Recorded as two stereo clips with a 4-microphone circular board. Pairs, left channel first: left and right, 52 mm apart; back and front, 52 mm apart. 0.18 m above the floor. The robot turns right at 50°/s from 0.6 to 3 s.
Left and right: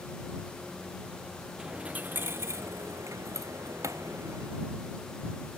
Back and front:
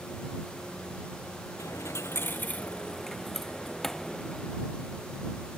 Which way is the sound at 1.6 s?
165° right.